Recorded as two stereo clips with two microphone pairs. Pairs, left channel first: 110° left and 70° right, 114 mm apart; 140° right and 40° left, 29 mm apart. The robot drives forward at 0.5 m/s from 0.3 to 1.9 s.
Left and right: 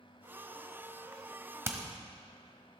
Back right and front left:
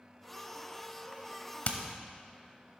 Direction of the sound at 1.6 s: 135° right.